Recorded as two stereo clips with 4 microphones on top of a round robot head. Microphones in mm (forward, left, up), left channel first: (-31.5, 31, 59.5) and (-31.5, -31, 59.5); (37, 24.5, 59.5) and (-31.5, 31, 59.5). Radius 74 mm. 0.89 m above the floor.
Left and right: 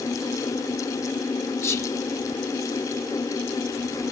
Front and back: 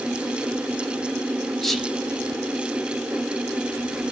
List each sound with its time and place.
1.6 s whispering: 80° left, 0.9 m